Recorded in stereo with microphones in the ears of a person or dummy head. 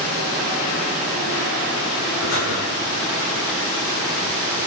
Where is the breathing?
70° left (ahead or behind), 5.5 m.